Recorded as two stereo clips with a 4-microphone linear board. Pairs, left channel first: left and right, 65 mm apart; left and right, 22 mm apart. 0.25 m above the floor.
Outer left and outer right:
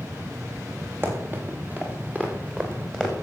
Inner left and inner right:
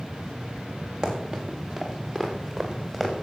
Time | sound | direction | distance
1.0 | running footsteps | 35° right (ahead or behind) | 4 m